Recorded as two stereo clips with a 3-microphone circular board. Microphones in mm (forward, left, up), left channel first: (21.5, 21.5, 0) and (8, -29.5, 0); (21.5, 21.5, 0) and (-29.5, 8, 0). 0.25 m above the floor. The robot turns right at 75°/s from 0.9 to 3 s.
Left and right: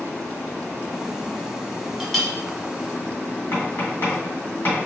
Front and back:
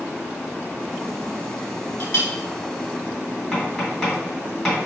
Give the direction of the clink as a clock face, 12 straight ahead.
1 o'clock.